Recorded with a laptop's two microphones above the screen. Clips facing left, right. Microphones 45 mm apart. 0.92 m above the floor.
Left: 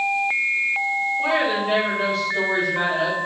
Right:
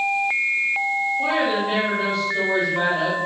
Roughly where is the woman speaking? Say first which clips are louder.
Left 1 dB; centre.